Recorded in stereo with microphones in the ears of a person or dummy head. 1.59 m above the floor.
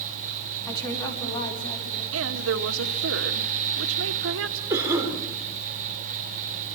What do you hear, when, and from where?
0.7 s a woman speaking: 20° left (ahead or behind), 3.5 m; by 2.0 s 25° left (ahead or behind), 4.5 m
2.1 s a woman speaking: 75° right (ahead or behind), 1.7 m
4.7 s a cough: 15° right (ahead or behind), 4 m